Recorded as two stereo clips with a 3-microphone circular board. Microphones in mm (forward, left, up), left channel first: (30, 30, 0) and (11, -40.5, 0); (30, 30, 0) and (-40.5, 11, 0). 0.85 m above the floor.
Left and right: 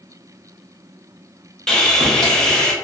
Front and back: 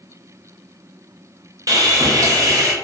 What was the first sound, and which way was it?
Sawing, 155° left.